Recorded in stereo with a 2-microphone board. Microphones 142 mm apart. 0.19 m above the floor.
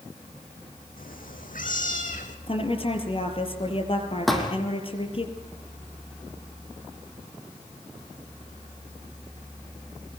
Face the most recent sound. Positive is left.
turn(degrees=0)  # may be behind; listen again after turning